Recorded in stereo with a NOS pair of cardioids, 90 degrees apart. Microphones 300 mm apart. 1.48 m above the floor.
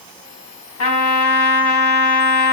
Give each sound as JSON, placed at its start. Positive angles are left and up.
{"t": 0.8, "sound": "a trumpet", "azimuth_deg": 60, "distance_m": 1.5}